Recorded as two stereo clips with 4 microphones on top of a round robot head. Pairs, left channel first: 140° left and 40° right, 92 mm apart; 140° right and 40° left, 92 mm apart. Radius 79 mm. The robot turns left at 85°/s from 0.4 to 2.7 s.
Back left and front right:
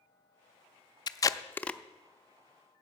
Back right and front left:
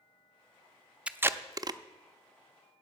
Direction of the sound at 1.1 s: 115° left.